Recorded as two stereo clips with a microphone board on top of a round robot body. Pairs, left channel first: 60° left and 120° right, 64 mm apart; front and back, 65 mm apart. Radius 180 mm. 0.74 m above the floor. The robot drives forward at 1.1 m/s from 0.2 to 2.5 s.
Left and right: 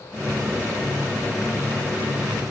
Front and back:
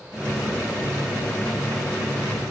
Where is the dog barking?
No dog barking in this recording.